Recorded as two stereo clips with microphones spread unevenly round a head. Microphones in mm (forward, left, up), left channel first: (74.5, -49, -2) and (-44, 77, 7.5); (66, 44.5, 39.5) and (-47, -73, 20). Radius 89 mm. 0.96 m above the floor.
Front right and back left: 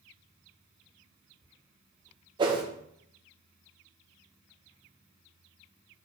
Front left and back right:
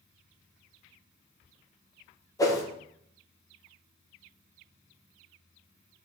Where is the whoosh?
105° left, 0.9 m.